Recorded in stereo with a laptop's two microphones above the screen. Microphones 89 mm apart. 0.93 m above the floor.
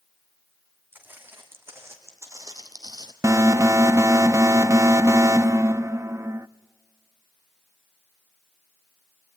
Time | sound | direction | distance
0.9 | footsteps | 20° right (ahead or behind) | 3.5 m
3.2 | an alarm | 35° right (ahead or behind) | 0.6 m